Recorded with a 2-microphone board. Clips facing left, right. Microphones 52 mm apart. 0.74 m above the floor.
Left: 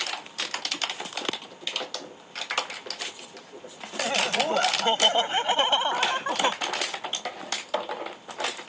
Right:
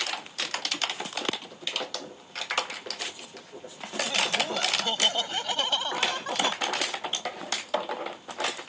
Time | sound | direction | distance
4.0 | laughter | 40° left (ahead or behind) | ?